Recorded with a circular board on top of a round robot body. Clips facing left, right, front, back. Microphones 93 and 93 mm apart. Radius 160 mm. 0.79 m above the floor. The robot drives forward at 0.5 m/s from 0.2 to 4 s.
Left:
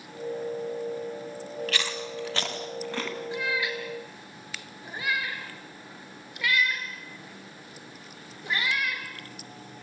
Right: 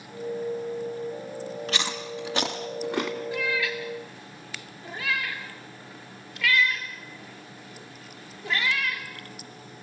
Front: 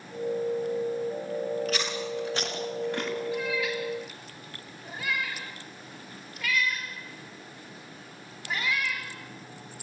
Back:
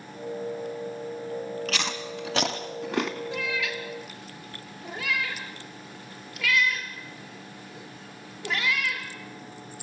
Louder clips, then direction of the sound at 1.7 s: Right 1 dB, front 1 dB; 160° right.